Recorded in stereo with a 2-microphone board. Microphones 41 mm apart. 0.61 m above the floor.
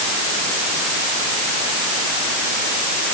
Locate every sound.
Only background noise.